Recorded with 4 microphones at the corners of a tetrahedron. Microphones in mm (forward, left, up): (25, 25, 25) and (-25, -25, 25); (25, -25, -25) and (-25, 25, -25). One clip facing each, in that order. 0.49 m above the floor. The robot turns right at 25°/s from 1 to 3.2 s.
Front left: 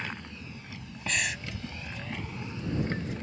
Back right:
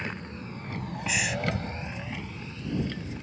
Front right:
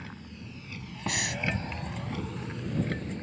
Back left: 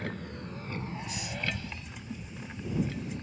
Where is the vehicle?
165° left; by 3.2 s straight ahead.